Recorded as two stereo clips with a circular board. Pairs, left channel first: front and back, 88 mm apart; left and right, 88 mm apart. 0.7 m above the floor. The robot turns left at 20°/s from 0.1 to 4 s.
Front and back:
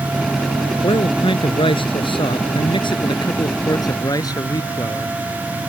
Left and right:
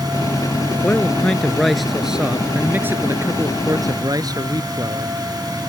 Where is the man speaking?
20° left; by 5.2 s 45° right.